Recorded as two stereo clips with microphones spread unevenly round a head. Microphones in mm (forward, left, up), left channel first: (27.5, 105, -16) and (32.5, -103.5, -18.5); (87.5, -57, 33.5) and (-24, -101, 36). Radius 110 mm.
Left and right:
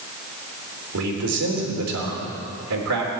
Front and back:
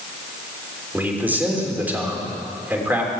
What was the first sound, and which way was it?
A man speaking, 85° right.